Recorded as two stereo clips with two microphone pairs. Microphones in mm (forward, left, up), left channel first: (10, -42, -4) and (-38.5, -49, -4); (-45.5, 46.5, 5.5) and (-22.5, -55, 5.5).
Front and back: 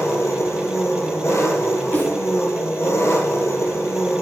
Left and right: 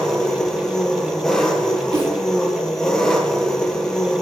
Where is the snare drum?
30° right, 6 m.